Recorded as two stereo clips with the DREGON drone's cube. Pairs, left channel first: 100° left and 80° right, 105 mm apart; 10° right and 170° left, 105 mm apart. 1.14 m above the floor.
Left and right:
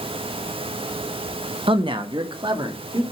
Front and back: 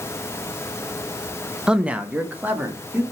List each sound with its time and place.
1.7 s a man speaking: 110° right, 0.7 m; by 3.0 s 120° right, 2 m